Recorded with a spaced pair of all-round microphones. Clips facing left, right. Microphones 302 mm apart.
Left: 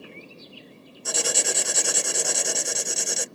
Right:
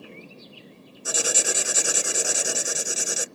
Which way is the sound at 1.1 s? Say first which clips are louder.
Even; 5° right (ahead or behind).